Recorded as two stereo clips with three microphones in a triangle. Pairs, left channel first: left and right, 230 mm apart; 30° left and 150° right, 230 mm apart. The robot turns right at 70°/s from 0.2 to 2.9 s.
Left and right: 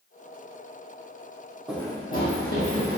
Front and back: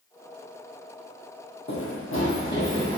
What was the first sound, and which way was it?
Running footsteps, 5° right.